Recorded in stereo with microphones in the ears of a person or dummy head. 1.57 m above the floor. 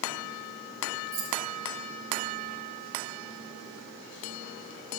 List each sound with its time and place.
1.1 s keys jangling: 65° right (ahead or behind), 1.1 m